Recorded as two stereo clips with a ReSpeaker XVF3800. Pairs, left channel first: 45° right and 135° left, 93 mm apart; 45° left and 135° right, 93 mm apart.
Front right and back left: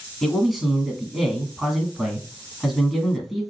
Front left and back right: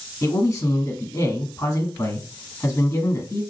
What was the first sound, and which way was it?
A man speaking, 50° left.